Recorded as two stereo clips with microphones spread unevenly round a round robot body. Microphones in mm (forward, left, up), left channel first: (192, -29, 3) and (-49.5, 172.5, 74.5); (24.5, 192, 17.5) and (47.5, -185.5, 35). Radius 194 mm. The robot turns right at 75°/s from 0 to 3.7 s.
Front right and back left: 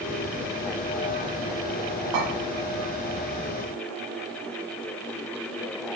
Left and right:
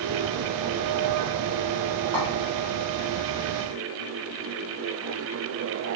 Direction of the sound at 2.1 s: 170° left.